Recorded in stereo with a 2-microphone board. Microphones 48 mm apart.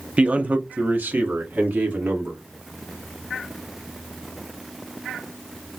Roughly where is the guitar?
No guitar in this recording.